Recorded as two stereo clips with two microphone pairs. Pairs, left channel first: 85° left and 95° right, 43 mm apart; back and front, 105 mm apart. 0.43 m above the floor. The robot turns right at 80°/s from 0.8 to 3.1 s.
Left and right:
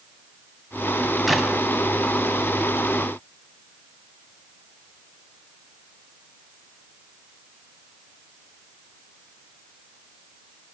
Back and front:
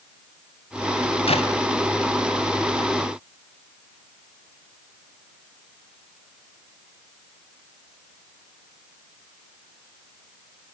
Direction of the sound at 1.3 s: 170° left.